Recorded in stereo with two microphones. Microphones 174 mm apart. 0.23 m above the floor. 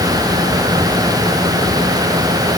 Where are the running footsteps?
No running footsteps in this recording.